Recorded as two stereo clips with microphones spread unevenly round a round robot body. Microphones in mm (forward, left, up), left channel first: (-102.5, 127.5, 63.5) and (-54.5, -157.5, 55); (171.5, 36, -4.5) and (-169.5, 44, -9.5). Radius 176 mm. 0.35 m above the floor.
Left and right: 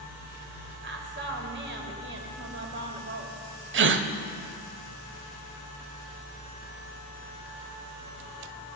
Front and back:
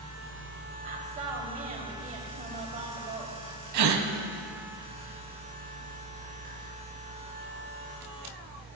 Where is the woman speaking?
115° right, 1.5 m.